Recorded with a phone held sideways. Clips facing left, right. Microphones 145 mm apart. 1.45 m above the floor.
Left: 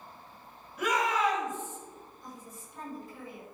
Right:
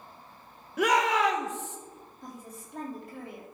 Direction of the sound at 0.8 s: 85° right.